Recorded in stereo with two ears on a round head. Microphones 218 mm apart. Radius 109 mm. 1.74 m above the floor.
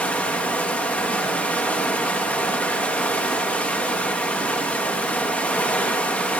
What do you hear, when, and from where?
0.0 s running water: 5° left (ahead or behind), 1.2 m